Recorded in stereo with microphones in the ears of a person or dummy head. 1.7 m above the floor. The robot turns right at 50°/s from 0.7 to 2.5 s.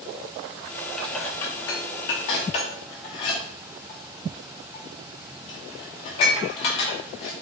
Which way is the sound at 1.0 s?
10° left (ahead or behind).